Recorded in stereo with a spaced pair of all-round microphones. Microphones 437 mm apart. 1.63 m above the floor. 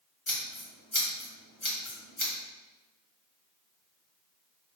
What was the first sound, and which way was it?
Scissors, 85° left.